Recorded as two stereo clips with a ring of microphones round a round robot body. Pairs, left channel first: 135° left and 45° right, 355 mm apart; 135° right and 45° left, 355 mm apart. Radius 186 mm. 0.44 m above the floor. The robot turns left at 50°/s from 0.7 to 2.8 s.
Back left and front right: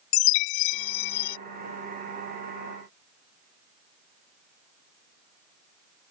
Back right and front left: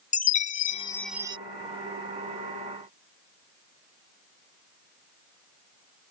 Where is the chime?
155° left; by 1.4 s 120° left.